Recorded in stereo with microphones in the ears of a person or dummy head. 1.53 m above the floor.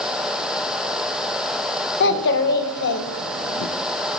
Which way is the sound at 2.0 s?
55° left (ahead or behind).